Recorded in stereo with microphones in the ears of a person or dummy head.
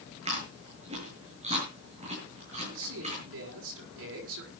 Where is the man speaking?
80° right, 6 m.